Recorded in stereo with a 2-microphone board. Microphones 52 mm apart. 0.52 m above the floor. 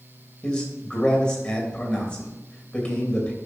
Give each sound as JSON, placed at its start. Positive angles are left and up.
{"t": 0.4, "sound": "a man speaking", "side_deg": 15, "distance_m": 3.0}